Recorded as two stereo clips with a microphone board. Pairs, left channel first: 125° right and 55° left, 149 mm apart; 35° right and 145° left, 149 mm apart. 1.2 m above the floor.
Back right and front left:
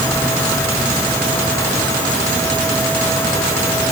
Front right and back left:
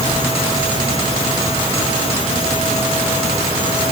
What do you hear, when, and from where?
Only background noise.